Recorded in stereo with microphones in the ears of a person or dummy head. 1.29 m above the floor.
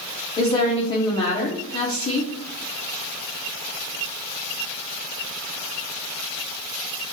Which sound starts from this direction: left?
A woman speaking, at 0.4 s.